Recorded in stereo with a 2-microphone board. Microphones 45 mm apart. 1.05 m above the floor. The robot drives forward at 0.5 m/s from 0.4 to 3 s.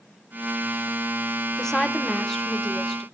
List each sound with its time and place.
1.6 s a woman speaking: 15° left (ahead or behind), 0.7 m; by 3.0 s 5° left (ahead or behind), 1.2 m